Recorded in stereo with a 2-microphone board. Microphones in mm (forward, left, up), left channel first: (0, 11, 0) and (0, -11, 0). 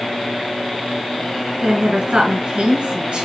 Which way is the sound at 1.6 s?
65° right (ahead or behind).